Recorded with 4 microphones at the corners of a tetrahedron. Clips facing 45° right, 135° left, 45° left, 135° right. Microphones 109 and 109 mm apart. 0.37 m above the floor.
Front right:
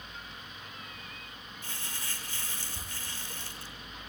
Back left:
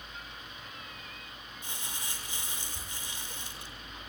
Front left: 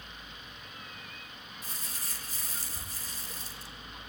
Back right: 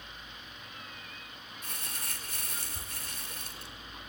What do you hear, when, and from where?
1.6 s crumpling: 155° right, 4 m